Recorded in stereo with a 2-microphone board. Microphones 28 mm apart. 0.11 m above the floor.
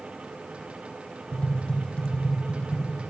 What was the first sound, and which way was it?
Tapping, 45° left (ahead or behind).